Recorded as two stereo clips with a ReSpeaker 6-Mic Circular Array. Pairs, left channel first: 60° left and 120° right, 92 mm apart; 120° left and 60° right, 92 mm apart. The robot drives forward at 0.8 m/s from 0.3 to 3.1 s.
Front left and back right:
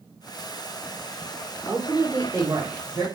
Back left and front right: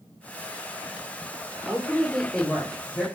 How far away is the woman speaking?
About 0.9 m.